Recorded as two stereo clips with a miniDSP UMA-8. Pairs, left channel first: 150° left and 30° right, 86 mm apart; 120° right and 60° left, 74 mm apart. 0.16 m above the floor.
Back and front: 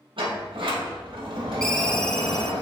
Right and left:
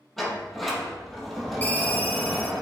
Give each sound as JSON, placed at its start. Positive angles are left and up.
{"t": 0.2, "sound": "a sliding door", "azimuth_deg": -35, "distance_m": 3.0}
{"t": 1.6, "sound": "a ringtone", "azimuth_deg": -140, "distance_m": 1.1}